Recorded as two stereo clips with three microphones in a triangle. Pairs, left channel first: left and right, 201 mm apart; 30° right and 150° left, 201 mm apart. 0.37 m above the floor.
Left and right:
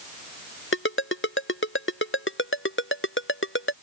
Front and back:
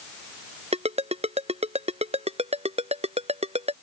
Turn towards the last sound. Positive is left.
turn(degrees=95)